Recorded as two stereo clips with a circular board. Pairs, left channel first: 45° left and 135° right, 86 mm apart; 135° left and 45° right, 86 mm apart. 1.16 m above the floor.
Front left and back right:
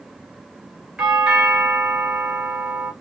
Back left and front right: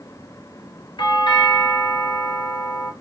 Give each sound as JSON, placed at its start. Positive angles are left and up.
{"t": 1.0, "sound": "a doorbell", "azimuth_deg": 145, "distance_m": 1.1}